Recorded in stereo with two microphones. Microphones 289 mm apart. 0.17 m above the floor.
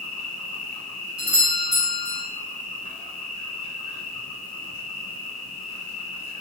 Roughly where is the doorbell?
Centre.